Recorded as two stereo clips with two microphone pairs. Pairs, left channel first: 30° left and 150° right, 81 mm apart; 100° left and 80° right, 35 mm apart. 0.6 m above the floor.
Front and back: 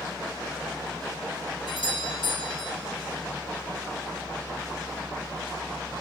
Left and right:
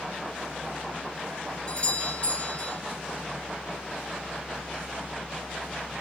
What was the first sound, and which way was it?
A doorbell, 35° left.